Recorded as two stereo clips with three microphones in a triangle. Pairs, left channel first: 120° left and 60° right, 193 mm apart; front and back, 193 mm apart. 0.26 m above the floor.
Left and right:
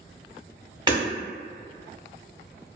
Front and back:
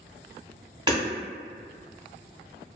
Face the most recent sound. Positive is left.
turn(degrees=-120)